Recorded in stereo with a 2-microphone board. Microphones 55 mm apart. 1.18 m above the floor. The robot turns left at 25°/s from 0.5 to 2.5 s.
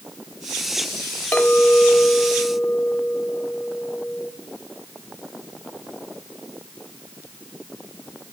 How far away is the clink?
About 1.4 m.